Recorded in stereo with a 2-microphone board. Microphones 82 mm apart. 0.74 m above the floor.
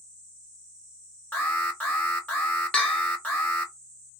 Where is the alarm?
20° left (ahead or behind), 1.1 m.